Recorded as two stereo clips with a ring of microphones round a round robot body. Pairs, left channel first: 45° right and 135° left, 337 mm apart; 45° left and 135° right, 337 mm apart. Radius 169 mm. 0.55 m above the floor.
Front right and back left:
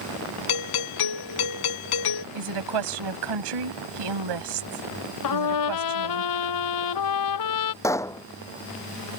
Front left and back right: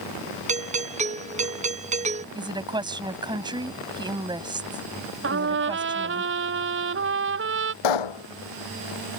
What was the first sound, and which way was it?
A doorbell, 65° right.